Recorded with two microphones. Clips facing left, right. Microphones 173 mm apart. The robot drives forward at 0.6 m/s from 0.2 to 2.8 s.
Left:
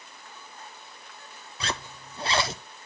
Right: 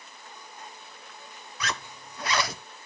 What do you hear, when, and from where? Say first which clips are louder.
1.6 s a zipper: left 1 dB; 30° left (ahead or behind), 0.6 m; by 2.6 s 25° left (ahead or behind), 0.7 m